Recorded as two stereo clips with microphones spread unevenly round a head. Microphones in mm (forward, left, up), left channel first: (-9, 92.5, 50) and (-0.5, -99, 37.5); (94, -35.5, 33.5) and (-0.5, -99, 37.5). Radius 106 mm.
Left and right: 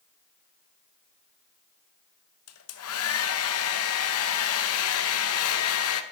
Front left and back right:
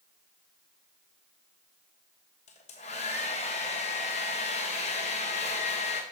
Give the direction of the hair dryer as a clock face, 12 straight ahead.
9 o'clock.